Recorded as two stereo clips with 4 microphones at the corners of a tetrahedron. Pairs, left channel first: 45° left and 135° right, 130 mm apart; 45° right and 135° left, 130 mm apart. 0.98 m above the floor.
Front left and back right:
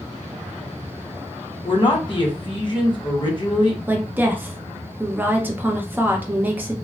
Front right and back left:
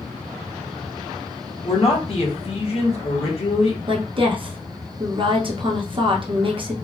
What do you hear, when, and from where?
1.6 s a man speaking: 10° right, 1.2 m
3.9 s a woman speaking: 155° left, 0.7 m